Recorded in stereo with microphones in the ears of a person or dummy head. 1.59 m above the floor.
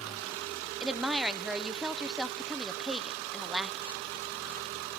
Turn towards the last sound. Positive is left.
turn(degrees=-5)  # may be behind; listen again after turning